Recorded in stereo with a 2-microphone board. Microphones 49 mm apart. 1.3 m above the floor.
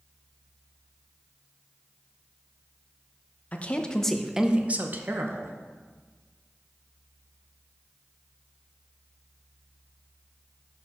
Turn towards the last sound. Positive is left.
turn(degrees=-60)  # may be behind; listen again after turning